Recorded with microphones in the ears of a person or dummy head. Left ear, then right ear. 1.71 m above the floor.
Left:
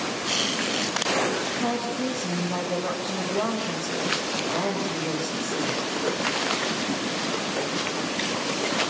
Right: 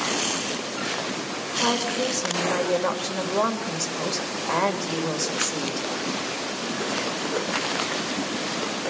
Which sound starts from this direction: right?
A woman speaking, at 1.6 s.